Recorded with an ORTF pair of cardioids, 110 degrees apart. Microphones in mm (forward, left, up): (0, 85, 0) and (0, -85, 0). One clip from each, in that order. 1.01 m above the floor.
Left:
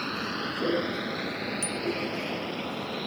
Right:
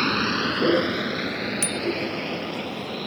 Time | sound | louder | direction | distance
0.0 | a vehicle | right 9 dB | 60° right | ?
1.6 | a bicycle bell | right 5 dB | 60° right | ?